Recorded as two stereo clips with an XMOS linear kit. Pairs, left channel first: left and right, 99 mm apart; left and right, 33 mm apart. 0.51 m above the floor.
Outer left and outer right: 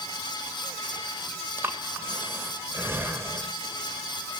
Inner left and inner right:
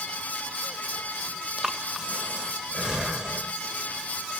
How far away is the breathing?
About 1.2 m.